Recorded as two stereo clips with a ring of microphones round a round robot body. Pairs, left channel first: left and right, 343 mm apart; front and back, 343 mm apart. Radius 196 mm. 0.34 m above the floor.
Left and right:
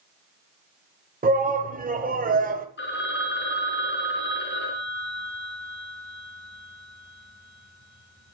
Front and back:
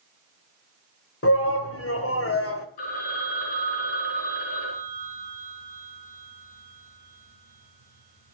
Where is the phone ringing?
30° left, 3 m.